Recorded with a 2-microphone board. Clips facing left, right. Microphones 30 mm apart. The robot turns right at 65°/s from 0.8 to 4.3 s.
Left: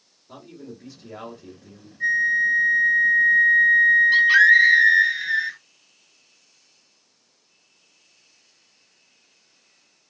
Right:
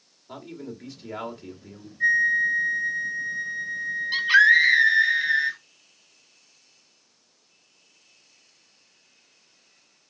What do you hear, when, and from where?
0.3 s a man speaking: 105° right, 1.7 m; by 1.9 s 35° right, 1.7 m
2.0 s a flute: 5° right, 1.1 m; by 5.1 s 145° left, 1.1 m
4.1 s a scream: centre (ahead or behind), 0.8 m; by 5.6 s 10° right (ahead or behind), 0.8 m